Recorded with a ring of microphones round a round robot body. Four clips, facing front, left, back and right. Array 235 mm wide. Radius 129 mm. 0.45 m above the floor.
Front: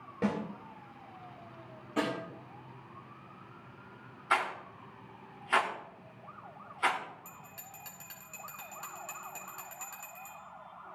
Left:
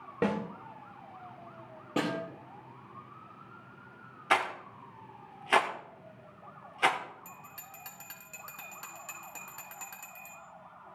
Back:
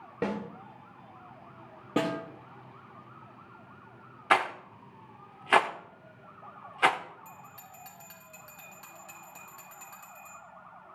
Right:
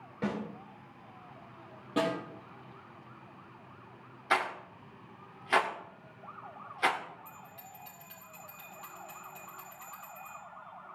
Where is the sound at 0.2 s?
120° left, 1.9 m.